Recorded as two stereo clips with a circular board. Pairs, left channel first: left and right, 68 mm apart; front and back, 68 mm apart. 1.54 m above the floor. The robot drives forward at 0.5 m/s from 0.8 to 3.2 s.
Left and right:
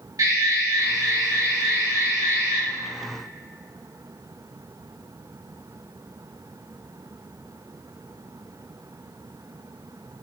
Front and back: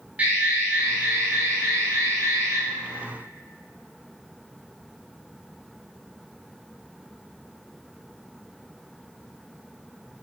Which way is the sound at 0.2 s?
115° right.